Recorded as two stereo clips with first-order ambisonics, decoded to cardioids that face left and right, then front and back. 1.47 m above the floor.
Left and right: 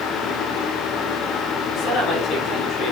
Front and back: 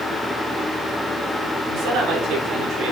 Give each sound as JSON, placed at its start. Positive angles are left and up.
{"t": 1.7, "sound": "a man speaking", "azimuth_deg": 140, "distance_m": 5.0}